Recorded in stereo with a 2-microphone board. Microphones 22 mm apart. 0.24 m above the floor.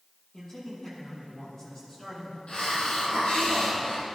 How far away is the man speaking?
About 7 m.